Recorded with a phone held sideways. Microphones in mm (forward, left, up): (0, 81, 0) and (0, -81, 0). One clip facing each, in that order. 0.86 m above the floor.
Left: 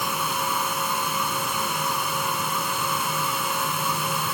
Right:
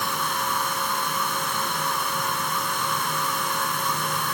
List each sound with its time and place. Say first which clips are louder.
0.0 s a fan: left 1 dB; 5° left (ahead or behind)